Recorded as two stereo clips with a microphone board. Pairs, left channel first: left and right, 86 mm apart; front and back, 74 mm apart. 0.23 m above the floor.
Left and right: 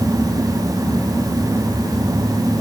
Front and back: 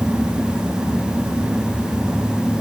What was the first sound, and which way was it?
Only background noise.